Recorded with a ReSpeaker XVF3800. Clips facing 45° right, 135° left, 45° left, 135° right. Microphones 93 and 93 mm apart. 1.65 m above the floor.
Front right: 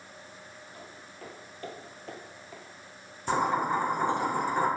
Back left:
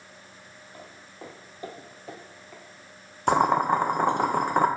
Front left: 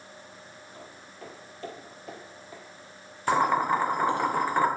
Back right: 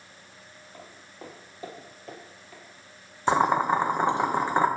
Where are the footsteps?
Straight behind, 2.5 m; by 2.6 s 20° left, 1.8 m.